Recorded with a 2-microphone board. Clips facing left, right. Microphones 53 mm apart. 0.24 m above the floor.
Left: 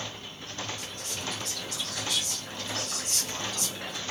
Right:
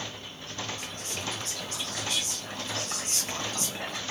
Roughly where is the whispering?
Right.